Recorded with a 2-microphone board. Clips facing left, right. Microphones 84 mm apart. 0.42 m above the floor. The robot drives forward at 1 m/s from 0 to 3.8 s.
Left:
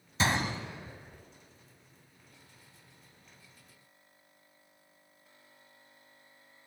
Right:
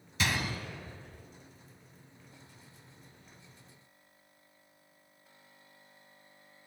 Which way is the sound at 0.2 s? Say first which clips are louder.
Left 3 dB; 35° left (ahead or behind).